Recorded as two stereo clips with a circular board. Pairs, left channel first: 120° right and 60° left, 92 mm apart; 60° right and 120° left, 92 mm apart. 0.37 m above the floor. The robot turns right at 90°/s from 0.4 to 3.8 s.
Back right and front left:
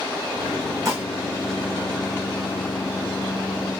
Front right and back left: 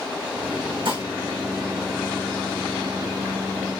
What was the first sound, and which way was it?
Dishes clattering, 110° left.